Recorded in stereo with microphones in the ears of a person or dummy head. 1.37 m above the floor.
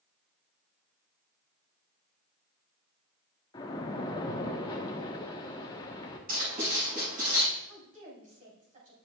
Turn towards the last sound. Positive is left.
turn(degrees=-45)  # may be behind; listen again after turning